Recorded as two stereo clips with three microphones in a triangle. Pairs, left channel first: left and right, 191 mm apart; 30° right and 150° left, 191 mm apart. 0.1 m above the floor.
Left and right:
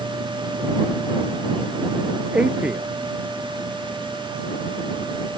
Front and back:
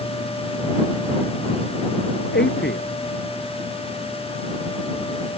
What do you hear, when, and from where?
2.3 s a man speaking: 5° right